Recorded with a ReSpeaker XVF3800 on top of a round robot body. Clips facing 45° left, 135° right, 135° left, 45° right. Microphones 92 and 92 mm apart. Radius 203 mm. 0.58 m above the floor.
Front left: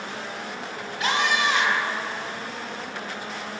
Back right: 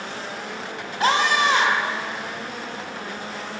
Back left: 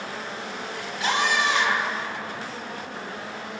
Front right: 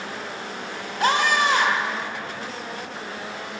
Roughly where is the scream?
Right.